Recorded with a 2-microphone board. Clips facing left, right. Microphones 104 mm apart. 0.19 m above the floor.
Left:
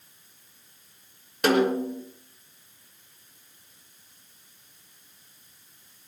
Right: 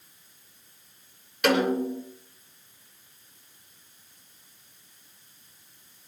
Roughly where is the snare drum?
Left.